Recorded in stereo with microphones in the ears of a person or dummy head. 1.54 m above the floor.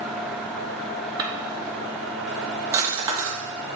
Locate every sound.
1.2 s a drawer: 20° right (ahead or behind), 1.0 m